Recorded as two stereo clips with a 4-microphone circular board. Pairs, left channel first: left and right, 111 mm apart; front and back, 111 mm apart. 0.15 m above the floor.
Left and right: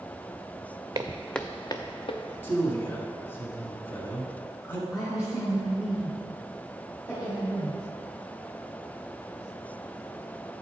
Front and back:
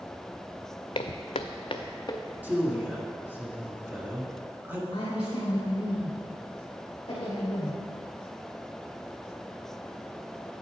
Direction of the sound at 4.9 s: 35° left.